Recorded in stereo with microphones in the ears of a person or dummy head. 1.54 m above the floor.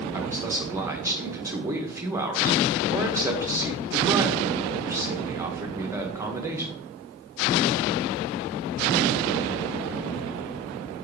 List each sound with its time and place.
0.1 s a man speaking: 15° right (ahead or behind), 1.2 m